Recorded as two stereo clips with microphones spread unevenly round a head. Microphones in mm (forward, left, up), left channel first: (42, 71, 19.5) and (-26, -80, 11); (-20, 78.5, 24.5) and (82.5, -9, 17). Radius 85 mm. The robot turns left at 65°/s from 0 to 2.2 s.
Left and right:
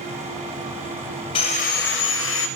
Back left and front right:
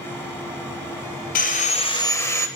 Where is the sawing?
125° left, 0.6 m; by 2.5 s 70° left, 0.6 m.